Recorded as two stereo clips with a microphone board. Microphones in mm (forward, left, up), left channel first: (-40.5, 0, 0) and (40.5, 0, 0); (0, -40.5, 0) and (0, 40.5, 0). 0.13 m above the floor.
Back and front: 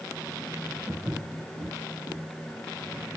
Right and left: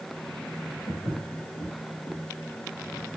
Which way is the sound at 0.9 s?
75° right.